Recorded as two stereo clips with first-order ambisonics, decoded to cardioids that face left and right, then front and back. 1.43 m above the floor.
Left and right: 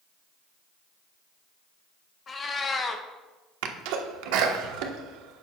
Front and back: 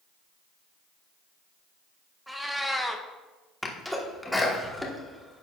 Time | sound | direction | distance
2.3 | a cat meowing | 95° left | 0.6 m
3.6 | a sneeze | 90° right | 1.2 m